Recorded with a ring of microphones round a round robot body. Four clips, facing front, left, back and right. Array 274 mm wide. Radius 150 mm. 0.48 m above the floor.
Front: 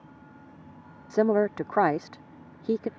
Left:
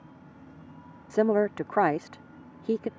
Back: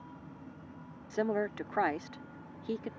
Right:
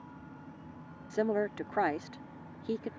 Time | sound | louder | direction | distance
1.1 | a woman speaking | left 7 dB, front 9 dB | 35° left | ?